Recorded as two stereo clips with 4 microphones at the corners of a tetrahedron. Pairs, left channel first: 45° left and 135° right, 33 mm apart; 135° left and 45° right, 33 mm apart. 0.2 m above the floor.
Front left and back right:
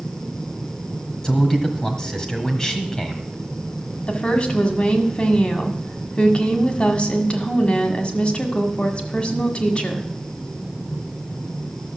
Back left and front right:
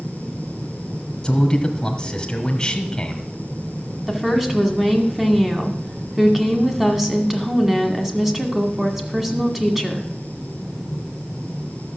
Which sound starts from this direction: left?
A man speaking, at 1.2 s.